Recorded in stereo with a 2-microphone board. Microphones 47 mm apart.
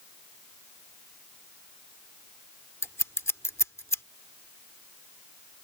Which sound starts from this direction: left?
Scissors, at 2.8 s.